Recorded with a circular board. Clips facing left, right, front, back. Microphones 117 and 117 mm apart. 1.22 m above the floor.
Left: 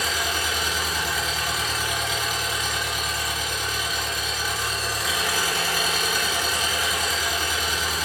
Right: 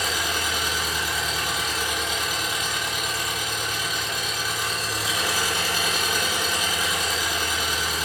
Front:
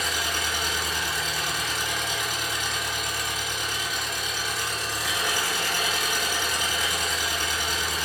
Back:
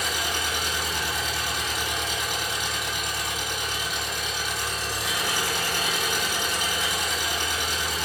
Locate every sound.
0.0 s an engine running: 150° right, 1.5 m